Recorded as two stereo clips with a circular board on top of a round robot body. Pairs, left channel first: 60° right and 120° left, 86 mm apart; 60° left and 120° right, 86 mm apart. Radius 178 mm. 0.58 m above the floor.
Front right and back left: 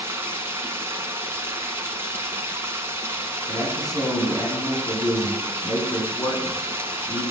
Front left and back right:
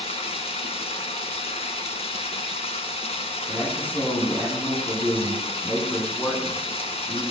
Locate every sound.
0.0 s running water: 55° left, 1.5 m
3.5 s a man speaking: 10° right, 8.5 m